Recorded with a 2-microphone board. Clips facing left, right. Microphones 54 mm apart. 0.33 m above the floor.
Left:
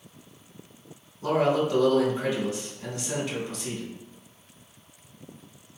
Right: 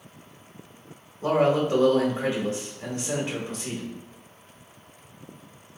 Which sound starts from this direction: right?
A man speaking, at 1.2 s.